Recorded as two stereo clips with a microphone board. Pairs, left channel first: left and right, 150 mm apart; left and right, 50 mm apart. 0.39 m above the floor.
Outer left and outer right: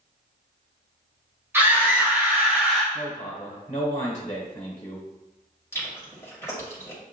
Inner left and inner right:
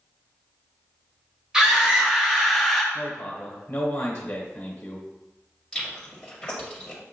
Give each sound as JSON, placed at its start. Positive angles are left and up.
{"t": 1.5, "sound": "a scream", "side_deg": -15, "distance_m": 1.8}
{"t": 2.9, "sound": "a man speaking", "side_deg": 40, "distance_m": 1.2}
{"t": 5.7, "sound": "chewing", "side_deg": 20, "distance_m": 1.6}